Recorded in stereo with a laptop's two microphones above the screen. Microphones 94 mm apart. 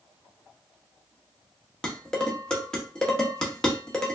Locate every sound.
1.8 s dishes clattering: 10° left (ahead or behind), 1.2 m